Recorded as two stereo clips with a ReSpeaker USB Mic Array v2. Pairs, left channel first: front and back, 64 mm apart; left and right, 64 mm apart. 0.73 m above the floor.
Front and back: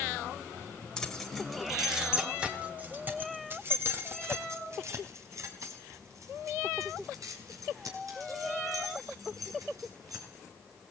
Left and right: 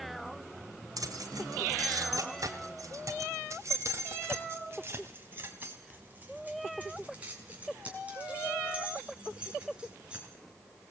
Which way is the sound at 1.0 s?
80° right.